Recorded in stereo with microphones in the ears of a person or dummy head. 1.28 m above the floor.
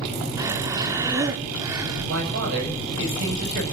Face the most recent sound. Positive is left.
turn(degrees=-75)  # may be behind; listen again after turning